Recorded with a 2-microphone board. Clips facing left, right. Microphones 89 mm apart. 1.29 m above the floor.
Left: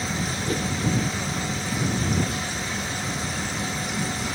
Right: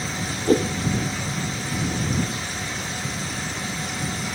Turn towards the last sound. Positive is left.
turn(degrees=-40)  # may be behind; listen again after turning